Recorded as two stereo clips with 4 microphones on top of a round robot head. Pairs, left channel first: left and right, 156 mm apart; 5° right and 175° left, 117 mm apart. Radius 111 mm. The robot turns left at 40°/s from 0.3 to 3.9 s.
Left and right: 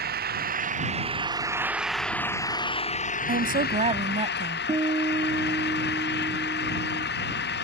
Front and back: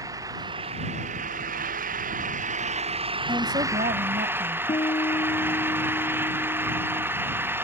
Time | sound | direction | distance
0.0 | an engine running | 115° right | ?
3.3 | a woman speaking | 115° right | ?
4.7 | a guitar | 35° right | ?